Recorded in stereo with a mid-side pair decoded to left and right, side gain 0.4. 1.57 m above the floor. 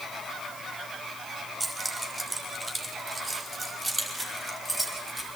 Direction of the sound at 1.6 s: 20° right.